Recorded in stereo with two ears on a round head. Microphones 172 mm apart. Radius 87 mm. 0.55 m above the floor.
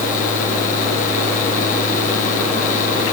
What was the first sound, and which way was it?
Only background noise.